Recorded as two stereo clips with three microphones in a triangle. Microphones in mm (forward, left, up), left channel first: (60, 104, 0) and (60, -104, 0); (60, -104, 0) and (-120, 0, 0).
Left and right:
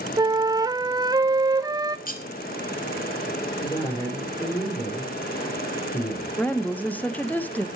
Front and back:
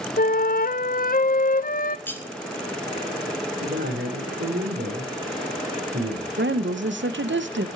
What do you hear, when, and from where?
0.2 s a flute: 25° right, 0.6 m
2.1 s cutlery clinking: 50° left, 1.4 m
3.6 s a man speaking: 155° left, 4 m
6.4 s a woman speaking: 170° left, 0.8 m